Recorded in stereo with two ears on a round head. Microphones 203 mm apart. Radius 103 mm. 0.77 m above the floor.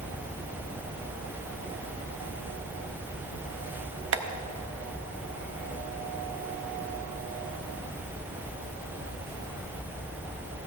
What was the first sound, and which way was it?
Tapping, 60° right (ahead or behind).